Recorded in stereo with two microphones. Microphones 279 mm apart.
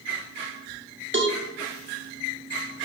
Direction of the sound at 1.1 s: 45° right (ahead or behind).